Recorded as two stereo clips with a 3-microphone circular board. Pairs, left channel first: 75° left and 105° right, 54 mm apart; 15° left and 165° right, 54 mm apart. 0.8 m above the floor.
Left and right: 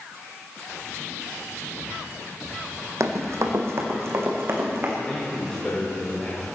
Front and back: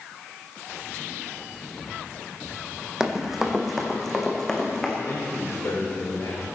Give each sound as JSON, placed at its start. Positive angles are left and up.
{"t": 3.0, "sound": "running footsteps", "azimuth_deg": -85, "distance_m": 1.9}
{"t": 5.0, "sound": "a man speaking", "azimuth_deg": 5, "distance_m": 3.5}